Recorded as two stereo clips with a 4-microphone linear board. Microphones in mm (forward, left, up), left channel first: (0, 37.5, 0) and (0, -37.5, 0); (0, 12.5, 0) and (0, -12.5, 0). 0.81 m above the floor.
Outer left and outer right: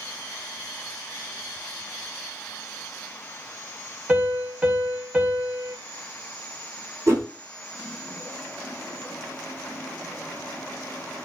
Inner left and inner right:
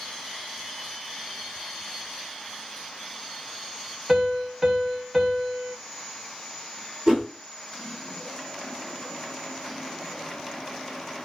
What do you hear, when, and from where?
4.1 s a piano: 20° right (ahead or behind), 0.9 m
7.1 s a whoosh: 40° right (ahead or behind), 2.5 m